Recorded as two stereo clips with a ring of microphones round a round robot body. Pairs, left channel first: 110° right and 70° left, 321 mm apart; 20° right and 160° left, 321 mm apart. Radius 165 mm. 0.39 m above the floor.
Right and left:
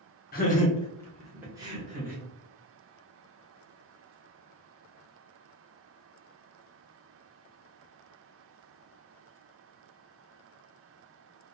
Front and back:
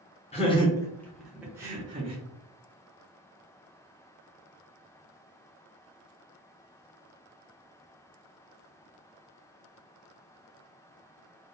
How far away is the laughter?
About 0.9 m.